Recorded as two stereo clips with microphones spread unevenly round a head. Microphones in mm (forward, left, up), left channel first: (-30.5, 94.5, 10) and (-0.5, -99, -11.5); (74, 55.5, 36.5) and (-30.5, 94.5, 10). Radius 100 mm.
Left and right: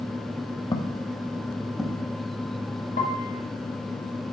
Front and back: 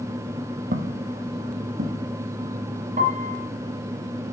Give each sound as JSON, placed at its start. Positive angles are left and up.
{"t": 0.7, "sound": "footsteps", "azimuth_deg": 165, "distance_m": 2.0}
{"t": 3.0, "sound": "a piano", "azimuth_deg": 145, "distance_m": 4.0}